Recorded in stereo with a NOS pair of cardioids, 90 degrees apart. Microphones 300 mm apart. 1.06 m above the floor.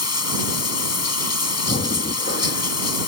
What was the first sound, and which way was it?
Running water, 55° left.